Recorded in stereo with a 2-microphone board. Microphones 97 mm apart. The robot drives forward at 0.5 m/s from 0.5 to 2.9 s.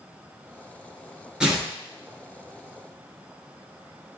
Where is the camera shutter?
I don't hear a camera shutter.